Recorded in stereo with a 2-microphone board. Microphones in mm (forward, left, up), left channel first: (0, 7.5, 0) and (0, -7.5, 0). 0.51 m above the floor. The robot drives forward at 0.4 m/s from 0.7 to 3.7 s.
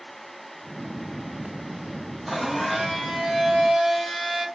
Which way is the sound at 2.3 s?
20° right (ahead or behind).